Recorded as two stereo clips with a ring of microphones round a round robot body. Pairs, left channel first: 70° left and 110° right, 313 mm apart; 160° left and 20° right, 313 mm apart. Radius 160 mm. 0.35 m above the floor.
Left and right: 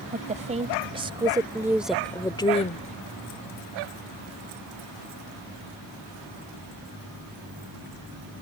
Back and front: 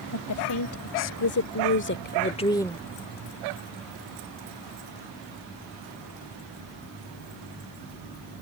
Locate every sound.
0.1 s a woman speaking: 175° right; by 2.9 s 70° left